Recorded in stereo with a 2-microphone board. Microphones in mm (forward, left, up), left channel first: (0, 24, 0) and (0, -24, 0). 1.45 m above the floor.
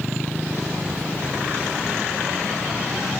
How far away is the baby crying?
No baby crying in this recording.